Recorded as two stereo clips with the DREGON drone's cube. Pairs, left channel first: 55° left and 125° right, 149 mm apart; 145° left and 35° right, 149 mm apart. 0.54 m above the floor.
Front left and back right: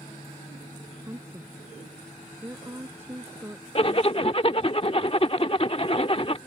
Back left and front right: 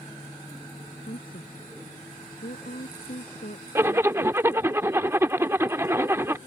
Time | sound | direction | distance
1.1 | a woman speaking | 160° left | ?
3.8 | a zipper | 30° left | ?